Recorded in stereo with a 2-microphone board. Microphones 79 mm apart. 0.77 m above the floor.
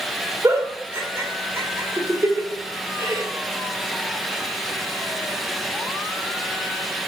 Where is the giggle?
35° right (ahead or behind), 2.5 m.